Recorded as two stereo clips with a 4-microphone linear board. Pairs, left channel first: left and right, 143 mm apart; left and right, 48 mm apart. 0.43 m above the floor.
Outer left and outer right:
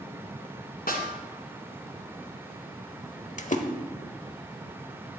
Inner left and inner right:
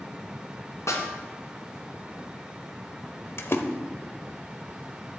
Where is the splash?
60° left (ahead or behind), 1.0 m.